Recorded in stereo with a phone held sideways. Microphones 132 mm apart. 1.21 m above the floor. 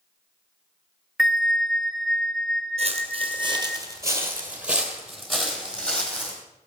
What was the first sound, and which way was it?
A bell, centre (ahead or behind).